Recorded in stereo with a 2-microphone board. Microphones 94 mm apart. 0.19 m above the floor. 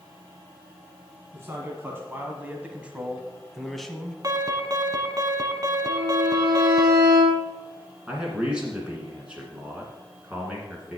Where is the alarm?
40° right (ahead or behind), 1.1 m.